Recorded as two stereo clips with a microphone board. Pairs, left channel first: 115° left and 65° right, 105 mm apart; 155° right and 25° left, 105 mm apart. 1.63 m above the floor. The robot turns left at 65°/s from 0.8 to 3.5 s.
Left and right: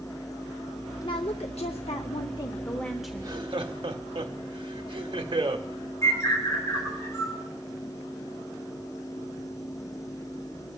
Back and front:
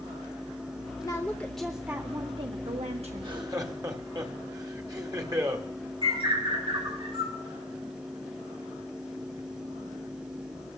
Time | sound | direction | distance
1.0 | a woman speaking | 150° left | 0.6 m
3.1 | laughter | 10° right | 1.2 m
6.0 | a bird | 50° left | 5.5 m